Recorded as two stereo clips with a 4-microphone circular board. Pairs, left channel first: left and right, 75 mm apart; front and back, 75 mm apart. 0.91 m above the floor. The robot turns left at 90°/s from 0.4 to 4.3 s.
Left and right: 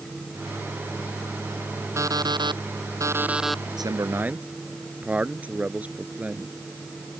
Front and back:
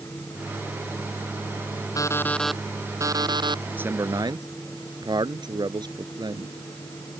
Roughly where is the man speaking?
Behind right.